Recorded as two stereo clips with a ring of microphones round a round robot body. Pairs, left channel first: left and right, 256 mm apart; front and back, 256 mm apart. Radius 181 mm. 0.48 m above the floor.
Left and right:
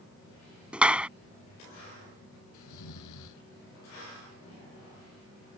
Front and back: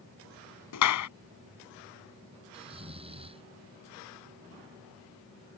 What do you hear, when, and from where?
0.7 s a clap: 5° right
2.5 s snoring: 110° left